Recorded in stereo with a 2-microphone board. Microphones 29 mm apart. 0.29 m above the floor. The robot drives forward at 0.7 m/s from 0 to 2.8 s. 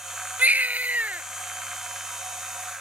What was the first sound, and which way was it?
A baby crying, 65° right (ahead or behind).